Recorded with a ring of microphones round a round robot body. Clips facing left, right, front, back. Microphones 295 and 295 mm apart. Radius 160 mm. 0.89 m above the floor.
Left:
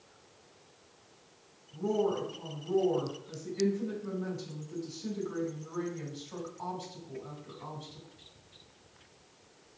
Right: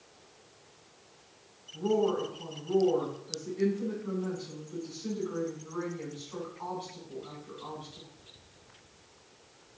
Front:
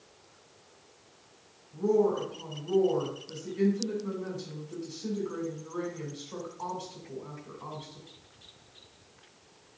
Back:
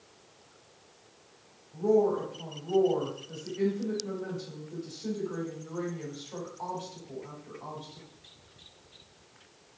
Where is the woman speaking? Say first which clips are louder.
Right 2 dB, back 1 dB; 65° left, 4 m.